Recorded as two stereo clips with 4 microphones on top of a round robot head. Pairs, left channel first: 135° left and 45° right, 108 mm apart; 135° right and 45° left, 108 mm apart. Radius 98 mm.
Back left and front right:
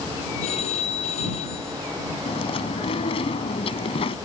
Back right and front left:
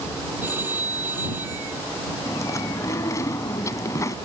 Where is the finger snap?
No finger snap in this recording.